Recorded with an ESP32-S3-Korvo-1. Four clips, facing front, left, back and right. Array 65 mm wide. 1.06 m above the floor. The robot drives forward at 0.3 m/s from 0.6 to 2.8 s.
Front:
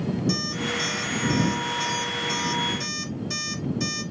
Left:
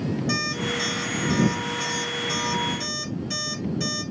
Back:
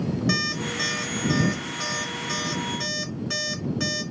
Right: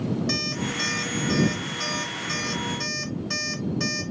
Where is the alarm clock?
165° right, 2.5 m.